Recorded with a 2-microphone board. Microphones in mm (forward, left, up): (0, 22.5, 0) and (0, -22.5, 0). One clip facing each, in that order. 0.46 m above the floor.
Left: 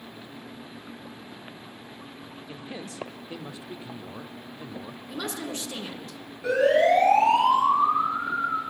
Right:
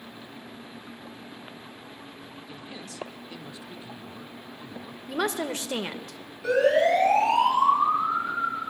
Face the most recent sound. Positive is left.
turn(degrees=15)  # may be behind; listen again after turning